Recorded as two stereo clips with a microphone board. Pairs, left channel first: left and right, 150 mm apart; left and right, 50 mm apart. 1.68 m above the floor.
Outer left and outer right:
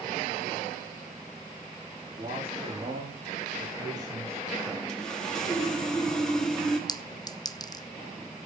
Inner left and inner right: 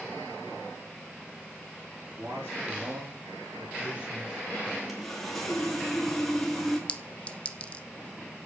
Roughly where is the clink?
Left.